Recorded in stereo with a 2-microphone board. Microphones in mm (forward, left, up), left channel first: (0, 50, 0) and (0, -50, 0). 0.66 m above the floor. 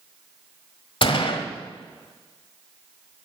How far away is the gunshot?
About 1.5 m.